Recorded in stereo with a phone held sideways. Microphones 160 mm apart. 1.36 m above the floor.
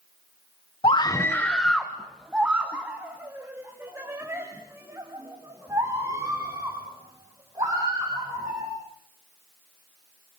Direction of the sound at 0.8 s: 35° left (ahead or behind).